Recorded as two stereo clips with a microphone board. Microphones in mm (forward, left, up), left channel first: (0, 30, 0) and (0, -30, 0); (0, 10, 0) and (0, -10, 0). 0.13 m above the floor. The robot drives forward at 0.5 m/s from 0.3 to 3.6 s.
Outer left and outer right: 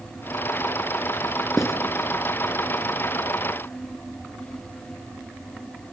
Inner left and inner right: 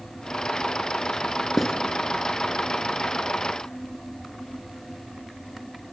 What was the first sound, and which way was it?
Writing, 5° right (ahead or behind).